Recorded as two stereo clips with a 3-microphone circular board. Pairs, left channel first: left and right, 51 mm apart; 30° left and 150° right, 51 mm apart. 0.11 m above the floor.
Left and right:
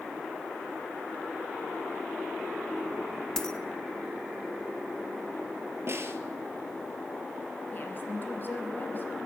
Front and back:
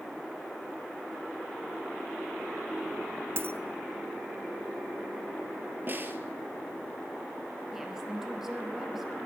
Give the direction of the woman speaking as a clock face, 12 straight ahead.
8 o'clock.